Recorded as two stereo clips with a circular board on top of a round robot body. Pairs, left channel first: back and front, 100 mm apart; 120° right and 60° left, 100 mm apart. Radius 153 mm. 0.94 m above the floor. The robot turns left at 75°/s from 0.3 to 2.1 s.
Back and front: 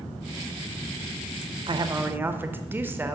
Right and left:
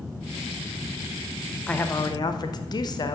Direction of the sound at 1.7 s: 40° right.